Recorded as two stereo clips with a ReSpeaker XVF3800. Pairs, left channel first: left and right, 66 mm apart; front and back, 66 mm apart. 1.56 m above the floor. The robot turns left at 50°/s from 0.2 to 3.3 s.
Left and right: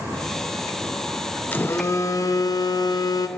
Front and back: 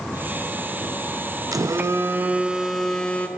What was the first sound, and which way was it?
A phone buzzing, 155° left.